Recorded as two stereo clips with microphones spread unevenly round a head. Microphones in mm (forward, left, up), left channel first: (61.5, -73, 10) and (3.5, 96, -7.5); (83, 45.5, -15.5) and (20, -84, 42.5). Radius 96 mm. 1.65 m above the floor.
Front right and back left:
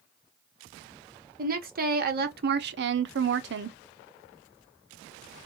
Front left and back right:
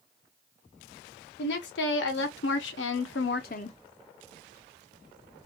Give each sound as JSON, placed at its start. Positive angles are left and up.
{"t": 1.4, "sound": "a woman speaking", "azimuth_deg": 70, "distance_m": 1.4}